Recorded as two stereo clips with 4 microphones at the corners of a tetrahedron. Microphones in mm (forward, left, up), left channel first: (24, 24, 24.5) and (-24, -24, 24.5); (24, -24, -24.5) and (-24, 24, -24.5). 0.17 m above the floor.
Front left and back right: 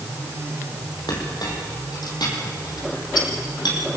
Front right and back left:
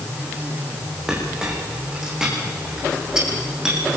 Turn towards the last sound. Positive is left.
turn(degrees=50)